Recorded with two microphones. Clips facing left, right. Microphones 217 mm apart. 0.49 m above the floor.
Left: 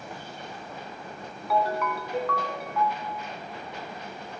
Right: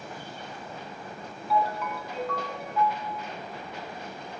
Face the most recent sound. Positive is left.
turn(degrees=70)  # may be behind; listen again after turning